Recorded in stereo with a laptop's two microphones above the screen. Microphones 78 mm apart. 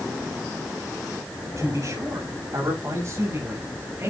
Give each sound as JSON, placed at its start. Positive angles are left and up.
{"t": 1.6, "sound": "a man speaking", "side_deg": -45, "distance_m": 6.5}